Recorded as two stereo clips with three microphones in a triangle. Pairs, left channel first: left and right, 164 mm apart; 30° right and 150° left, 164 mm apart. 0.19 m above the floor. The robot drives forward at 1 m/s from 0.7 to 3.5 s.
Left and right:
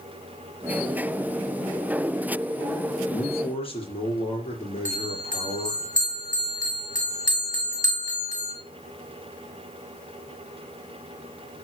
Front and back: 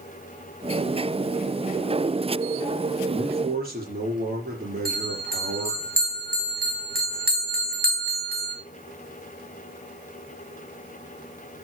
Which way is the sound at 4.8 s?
130° left.